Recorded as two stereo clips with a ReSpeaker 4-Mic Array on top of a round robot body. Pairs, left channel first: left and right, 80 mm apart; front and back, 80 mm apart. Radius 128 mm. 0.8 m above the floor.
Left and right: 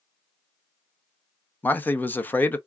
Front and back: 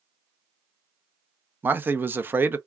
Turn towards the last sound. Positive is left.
turn(degrees=140)